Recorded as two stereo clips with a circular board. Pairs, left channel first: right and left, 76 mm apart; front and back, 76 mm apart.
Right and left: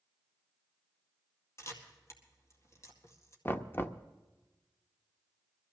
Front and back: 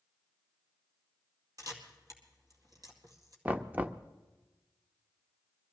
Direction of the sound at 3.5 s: 125° right.